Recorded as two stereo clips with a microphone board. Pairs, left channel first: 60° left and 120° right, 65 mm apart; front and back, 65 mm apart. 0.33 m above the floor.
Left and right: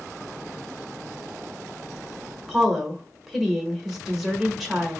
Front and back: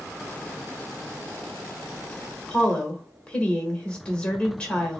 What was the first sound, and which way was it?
A woman speaking, 40° right.